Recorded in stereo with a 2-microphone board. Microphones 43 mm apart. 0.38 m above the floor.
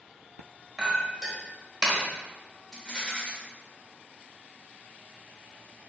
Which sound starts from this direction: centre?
A clink, at 0.8 s.